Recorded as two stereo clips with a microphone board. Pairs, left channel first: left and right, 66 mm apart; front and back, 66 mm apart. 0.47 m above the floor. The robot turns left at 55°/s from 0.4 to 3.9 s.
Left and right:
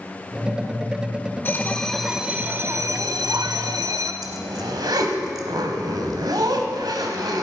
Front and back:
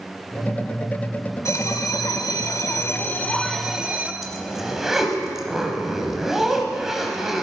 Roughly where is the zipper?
Right.